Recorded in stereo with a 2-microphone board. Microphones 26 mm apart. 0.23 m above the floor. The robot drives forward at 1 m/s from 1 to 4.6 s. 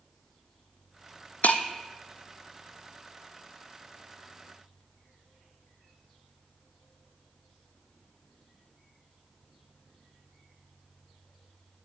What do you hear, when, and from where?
1.4 s breaking glass: 80° left, 0.8 m; by 1.6 s 70° left (ahead or behind), 0.8 m